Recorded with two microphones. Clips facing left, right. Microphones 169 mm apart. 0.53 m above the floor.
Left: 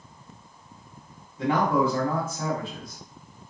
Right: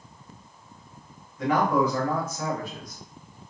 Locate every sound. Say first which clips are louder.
1.4 s a man speaking: even; 30° left (ahead or behind), 1.2 m